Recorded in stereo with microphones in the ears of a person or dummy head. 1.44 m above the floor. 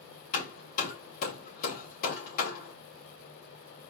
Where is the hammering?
55° left (ahead or behind), 2 m.